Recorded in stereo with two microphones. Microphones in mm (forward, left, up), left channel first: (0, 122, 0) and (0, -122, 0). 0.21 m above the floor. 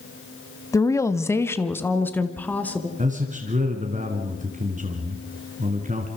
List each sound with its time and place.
0.7 s a woman speaking: 15° left (ahead or behind), 1.0 m; by 2.9 s 5° left (ahead or behind), 2.5 m
3.0 s a man speaking: 30° right (ahead or behind), 2.5 m